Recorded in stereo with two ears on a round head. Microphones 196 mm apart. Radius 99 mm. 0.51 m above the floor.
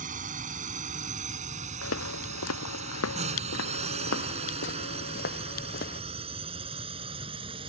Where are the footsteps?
80° left; by 6.0 s 45° left (ahead or behind).